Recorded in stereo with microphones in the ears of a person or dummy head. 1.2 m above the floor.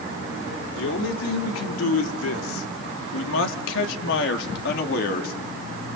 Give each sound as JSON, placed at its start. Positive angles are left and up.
{"t": 0.8, "sound": "a man speaking", "side_deg": 70, "distance_m": 3.0}